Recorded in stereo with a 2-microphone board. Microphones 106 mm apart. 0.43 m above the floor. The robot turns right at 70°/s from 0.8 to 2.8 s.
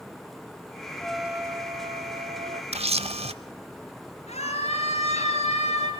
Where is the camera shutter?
75° right (ahead or behind), 0.7 m; by 3.3 s 70° right (ahead or behind), 0.7 m.